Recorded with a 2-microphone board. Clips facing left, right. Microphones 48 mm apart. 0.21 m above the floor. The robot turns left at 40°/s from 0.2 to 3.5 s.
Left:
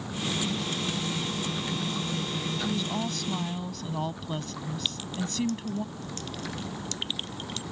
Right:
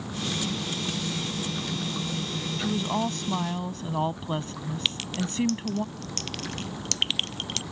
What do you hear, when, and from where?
2.6 s a woman speaking: 90° right; by 5.8 s 125° right
4.8 s a clink: 75° right (ahead or behind)